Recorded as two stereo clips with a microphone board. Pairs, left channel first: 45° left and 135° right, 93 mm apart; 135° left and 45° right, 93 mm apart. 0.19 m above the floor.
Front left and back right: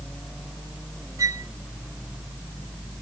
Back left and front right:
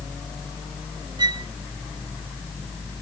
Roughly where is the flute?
Right.